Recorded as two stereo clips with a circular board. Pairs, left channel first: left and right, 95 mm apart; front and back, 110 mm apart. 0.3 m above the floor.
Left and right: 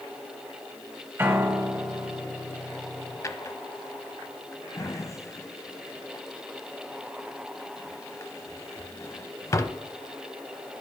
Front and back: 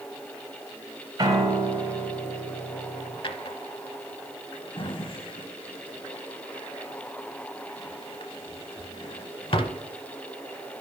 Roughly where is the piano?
Behind right.